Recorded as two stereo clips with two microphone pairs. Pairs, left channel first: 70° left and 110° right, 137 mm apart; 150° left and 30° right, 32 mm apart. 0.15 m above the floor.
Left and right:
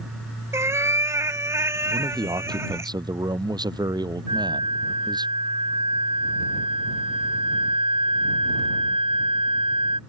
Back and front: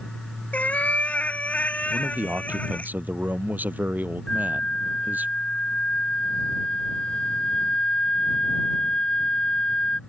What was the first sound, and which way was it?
A cat meowing, 175° right.